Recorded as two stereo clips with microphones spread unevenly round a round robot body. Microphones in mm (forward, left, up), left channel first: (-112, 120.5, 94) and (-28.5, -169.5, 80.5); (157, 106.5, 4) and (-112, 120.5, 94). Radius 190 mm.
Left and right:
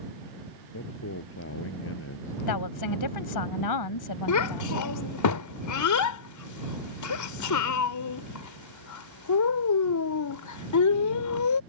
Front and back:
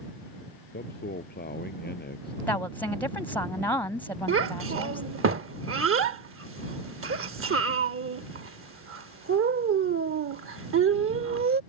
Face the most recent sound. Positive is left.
turn(degrees=130)